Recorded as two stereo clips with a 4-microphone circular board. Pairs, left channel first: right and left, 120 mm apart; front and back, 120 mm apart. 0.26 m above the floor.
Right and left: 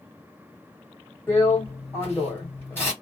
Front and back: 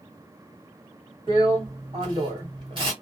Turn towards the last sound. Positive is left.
turn(degrees=-160)